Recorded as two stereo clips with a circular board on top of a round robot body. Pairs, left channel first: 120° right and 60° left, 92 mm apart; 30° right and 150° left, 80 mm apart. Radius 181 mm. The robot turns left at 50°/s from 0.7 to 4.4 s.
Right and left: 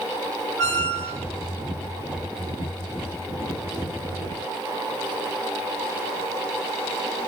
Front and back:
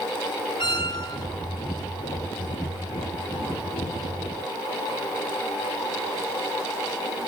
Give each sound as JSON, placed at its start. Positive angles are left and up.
{"t": 0.6, "sound": "a squeak", "azimuth_deg": -25, "distance_m": 1.5}